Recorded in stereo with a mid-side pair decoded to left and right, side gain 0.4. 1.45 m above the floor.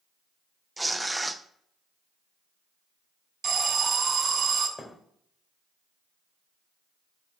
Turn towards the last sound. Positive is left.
turn(degrees=25)